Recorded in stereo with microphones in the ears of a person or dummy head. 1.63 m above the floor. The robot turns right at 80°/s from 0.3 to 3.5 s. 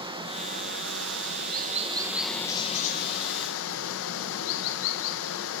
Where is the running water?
155° right, 1.4 m; by 5.6 s 100° left, 1.4 m.